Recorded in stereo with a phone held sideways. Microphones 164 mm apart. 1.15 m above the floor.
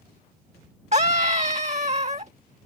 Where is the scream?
45° right (ahead or behind).